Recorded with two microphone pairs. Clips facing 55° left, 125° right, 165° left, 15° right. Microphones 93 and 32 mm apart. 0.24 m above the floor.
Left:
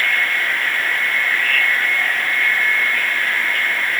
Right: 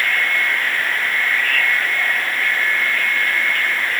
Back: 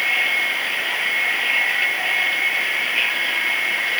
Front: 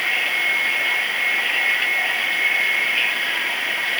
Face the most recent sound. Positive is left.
No sound to turn to.